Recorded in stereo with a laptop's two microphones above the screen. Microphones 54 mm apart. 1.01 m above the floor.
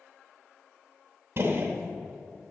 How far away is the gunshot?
About 0.9 m.